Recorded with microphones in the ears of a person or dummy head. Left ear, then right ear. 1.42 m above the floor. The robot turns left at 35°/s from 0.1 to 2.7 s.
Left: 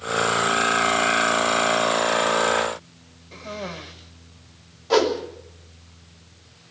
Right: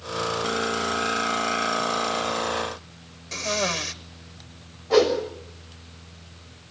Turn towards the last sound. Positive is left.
turn(degrees=85)